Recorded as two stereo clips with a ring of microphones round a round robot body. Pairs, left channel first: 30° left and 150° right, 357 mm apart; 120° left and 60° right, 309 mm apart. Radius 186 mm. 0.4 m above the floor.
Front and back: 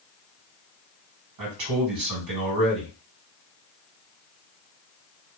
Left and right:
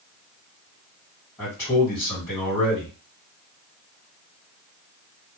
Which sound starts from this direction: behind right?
A man speaking, at 1.4 s.